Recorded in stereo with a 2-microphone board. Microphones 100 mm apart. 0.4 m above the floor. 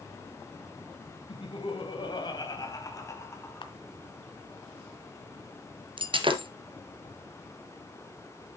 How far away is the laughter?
About 2 m.